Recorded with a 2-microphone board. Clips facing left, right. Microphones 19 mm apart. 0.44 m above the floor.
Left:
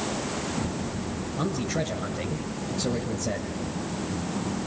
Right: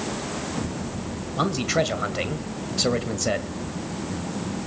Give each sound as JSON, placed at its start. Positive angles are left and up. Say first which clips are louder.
{"t": 1.4, "sound": "a man speaking", "louder": "right 6 dB", "side_deg": -55, "distance_m": 1.9}